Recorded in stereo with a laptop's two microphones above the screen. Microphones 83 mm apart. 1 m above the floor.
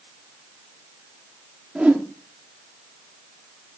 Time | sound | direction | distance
1.8 | a whoosh | 15° right (ahead or behind) | 1.3 m